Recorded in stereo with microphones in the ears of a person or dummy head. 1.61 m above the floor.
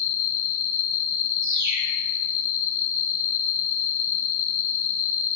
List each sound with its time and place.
0.0 s an insect: 85° left, 3 m
1.4 s a bird: 50° right (ahead or behind), 1.8 m